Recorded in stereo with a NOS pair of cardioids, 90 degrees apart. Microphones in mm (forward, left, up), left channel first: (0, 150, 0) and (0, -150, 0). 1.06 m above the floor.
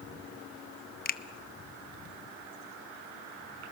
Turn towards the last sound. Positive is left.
turn(degrees=30)